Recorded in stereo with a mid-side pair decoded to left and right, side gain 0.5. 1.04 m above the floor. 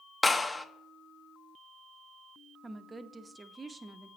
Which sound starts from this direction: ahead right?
A woman speaking, at 2.6 s.